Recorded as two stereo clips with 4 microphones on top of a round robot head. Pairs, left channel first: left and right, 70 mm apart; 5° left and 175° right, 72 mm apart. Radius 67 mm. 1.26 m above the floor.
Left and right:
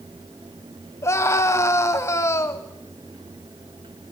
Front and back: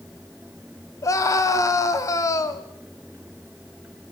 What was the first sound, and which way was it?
A scream, 45° left.